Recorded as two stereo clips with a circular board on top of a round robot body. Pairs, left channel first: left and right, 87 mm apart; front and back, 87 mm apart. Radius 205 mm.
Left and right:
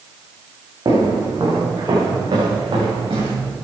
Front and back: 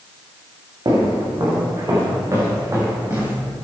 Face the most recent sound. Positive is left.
turn(degrees=-120)